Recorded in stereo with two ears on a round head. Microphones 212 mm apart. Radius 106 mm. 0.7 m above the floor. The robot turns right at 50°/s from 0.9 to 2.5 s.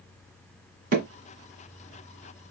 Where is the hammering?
40° right (ahead or behind), 1.6 m; by 1.1 s 45° right (ahead or behind), 1.6 m.